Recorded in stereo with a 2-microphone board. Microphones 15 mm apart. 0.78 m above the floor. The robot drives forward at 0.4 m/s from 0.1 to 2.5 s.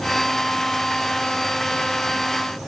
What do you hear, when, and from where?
Only background noise.